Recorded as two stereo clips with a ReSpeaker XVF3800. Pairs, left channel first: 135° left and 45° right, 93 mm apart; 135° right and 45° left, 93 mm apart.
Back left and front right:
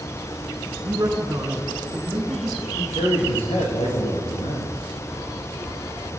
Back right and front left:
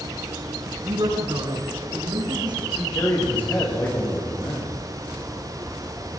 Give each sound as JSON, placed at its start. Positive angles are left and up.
{"t": 0.8, "sound": "a man speaking", "azimuth_deg": 10, "distance_m": 8.0}
{"t": 2.8, "sound": "a man speaking", "azimuth_deg": 155, "distance_m": 8.0}